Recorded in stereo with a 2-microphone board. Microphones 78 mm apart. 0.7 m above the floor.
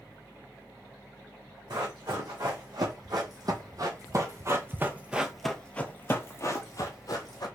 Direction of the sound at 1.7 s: 65° right (ahead or behind).